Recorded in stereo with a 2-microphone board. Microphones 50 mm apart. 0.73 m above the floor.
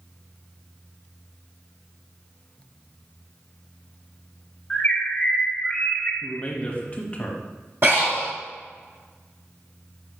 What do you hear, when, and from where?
4.7 s a bird: 25° left (ahead or behind), 1.5 m
6.2 s a man speaking: 25° left (ahead or behind), 1.1 m
7.8 s breathing: 50° right (ahead or behind), 2 m